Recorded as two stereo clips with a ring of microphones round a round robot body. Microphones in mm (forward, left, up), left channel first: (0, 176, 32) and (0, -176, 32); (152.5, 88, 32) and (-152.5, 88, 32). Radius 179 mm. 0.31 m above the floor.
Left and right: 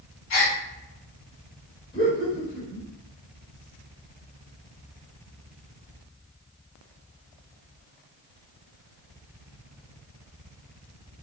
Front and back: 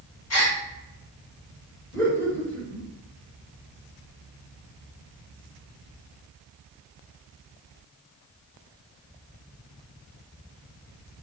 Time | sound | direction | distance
0.3 | a gasp | 40° left | 1.8 m
1.9 | laughter | 75° left | 1.6 m